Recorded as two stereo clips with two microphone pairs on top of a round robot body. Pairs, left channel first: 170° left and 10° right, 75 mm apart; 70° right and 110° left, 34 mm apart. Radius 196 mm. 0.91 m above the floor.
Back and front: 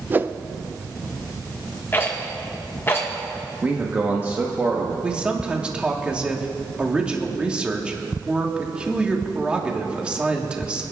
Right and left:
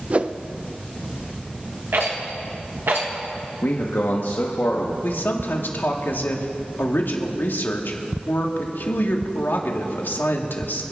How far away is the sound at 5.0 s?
About 1.6 m.